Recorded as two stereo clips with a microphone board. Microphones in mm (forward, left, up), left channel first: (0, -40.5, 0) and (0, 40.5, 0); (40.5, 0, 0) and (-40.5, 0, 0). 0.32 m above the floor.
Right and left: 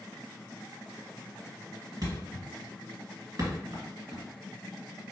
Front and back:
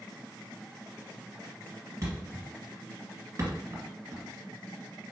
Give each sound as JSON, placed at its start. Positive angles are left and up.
{"t": 2.0, "sound": "a thud", "azimuth_deg": 135, "distance_m": 1.7}